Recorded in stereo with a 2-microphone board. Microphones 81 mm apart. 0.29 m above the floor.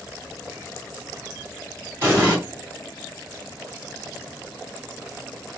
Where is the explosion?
25° right (ahead or behind), 1.5 m.